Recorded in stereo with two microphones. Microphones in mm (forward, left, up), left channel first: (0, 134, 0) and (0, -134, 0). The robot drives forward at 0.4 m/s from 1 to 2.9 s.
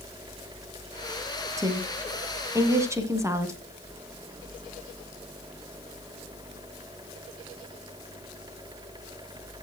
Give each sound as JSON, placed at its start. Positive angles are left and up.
{"t": 1.6, "sound": "a woman speaking", "side_deg": -10, "distance_m": 1.6}